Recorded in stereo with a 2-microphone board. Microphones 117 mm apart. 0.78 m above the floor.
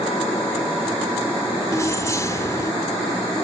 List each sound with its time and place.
1.7 s keys jangling: 25° left (ahead or behind), 1.8 m